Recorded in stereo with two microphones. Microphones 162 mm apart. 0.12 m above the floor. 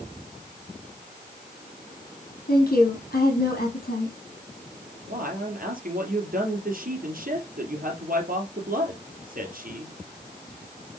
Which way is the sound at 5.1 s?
60° right (ahead or behind).